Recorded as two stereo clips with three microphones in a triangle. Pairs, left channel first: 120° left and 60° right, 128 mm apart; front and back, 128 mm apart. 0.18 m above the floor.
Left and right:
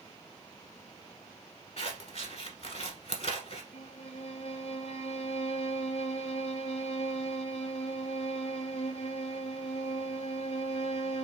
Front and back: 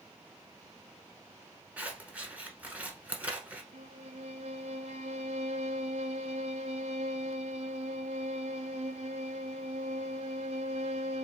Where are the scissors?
105° left, 1.1 m.